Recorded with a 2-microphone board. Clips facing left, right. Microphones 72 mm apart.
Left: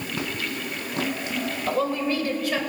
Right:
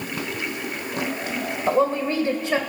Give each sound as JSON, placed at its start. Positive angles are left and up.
{"t": 1.7, "sound": "a woman speaking", "side_deg": -25, "distance_m": 1.7}